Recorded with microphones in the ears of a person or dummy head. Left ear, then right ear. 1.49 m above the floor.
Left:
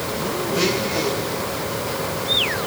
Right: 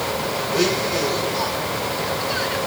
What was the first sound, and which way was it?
A blender, 10° right (ahead or behind).